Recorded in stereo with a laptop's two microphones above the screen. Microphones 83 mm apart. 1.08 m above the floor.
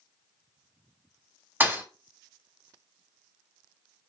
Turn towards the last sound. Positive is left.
turn(degrees=-25)  # may be behind; listen again after turning